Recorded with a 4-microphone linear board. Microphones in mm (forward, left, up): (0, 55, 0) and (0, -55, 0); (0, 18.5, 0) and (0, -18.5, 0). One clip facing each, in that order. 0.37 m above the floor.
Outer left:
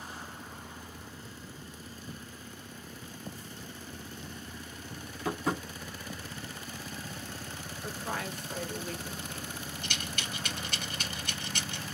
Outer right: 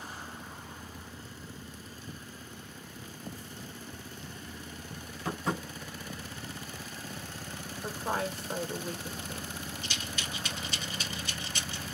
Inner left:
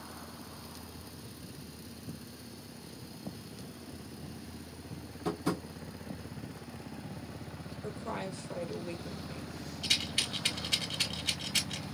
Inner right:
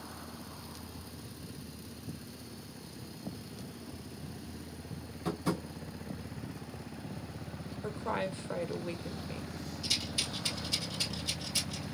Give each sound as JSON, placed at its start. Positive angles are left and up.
{"t": 5.2, "sound": "tapping", "side_deg": 0, "distance_m": 2.5}
{"t": 7.8, "sound": "a woman speaking", "side_deg": -30, "distance_m": 1.0}
{"t": 9.8, "sound": "a rattle", "side_deg": 55, "distance_m": 1.2}